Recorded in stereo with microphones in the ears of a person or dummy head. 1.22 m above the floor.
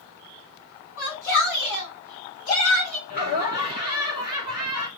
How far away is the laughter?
About 3.5 m.